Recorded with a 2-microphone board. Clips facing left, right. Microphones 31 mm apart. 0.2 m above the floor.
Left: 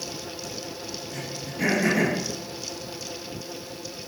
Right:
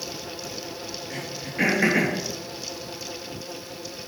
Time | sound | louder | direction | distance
1.1 | throat clearing | right 2 dB | 65° right (ahead or behind) | 3.5 m